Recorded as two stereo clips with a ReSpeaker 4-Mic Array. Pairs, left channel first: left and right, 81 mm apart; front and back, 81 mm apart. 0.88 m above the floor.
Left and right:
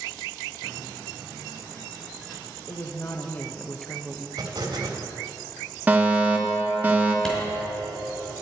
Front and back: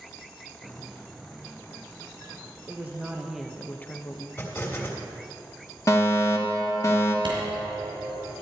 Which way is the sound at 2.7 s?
125° left.